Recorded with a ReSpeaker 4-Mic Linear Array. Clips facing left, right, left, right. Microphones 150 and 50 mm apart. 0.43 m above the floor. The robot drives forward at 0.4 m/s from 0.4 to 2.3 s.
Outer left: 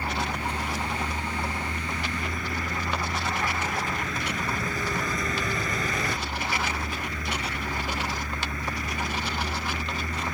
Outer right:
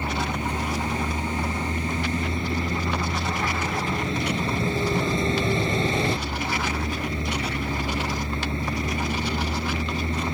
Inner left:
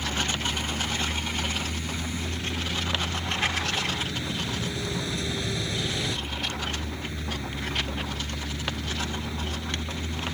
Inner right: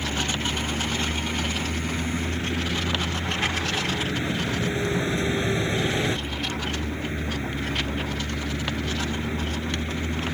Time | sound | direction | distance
0.0 | a vehicle | 25° right (ahead or behind) | ?